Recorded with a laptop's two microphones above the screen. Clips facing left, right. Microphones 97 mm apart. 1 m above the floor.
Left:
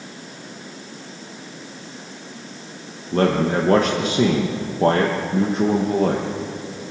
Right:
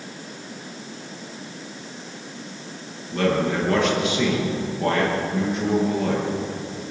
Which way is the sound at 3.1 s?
45° left (ahead or behind).